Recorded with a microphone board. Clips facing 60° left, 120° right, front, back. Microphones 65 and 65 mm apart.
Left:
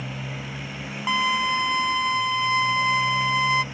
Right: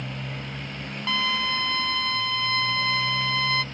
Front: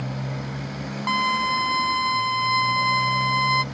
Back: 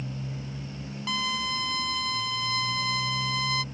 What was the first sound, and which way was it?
A motorcycle, 25° right.